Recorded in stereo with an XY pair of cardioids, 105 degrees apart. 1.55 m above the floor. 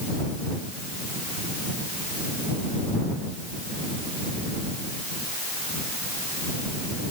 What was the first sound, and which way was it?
Only background noise.